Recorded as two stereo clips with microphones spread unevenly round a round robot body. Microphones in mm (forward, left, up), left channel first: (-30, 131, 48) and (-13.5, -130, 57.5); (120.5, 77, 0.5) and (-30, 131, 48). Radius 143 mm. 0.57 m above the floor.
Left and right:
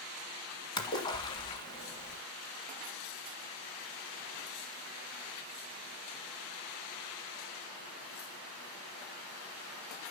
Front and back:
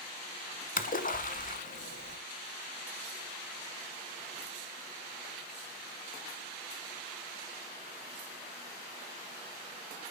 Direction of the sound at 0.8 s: 20° left.